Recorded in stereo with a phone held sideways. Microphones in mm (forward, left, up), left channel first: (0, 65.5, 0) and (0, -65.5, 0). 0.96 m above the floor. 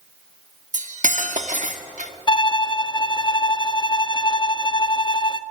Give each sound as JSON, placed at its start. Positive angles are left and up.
{"t": 0.7, "sound": "cutlery clinking", "side_deg": -70, "distance_m": 1.1}
{"t": 2.3, "sound": "a violin", "side_deg": 35, "distance_m": 0.6}